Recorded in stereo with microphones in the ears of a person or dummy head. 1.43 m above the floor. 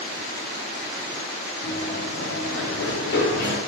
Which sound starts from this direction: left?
Running footsteps, at 1.6 s.